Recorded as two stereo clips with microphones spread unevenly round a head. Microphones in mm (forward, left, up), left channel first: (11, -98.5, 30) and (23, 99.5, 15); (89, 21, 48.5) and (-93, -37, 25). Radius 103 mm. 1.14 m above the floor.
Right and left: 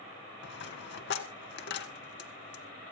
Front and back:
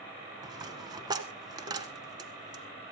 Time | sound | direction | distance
0.4 | a dropped coin | 90° right | 1.7 m